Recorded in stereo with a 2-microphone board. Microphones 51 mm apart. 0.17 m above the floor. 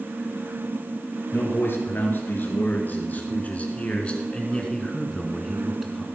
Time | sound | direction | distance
1.3 | a man speaking | 50° left (ahead or behind) | 3.5 m